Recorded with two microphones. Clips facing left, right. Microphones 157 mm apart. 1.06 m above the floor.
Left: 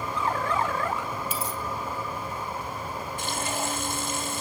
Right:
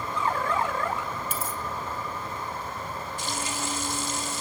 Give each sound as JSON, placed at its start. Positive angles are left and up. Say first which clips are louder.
{"t": 1.3, "sound": "a dropped coin", "louder": "left 1 dB", "side_deg": -45, "distance_m": 2.5}
{"t": 3.2, "sound": "frying", "louder": "left 3 dB", "side_deg": 55, "distance_m": 1.8}